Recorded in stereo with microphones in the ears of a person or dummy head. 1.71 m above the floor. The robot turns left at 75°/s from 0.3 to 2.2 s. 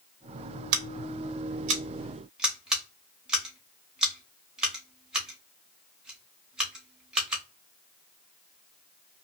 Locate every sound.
0.7 s scissors: 65° right (ahead or behind), 0.8 m; by 7.4 s 5° left (ahead or behind), 0.8 m